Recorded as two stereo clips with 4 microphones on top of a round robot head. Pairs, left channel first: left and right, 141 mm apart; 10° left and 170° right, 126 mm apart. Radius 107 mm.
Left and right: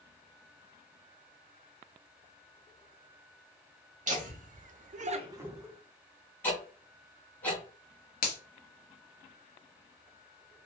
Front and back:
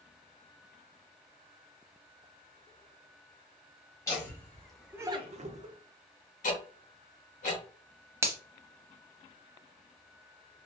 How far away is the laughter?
About 1.5 m.